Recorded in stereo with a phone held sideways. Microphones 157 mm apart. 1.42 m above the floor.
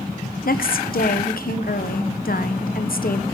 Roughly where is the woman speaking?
Left.